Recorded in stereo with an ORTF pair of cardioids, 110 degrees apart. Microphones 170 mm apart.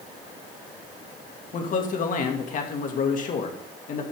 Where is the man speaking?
50° left, 2.5 m.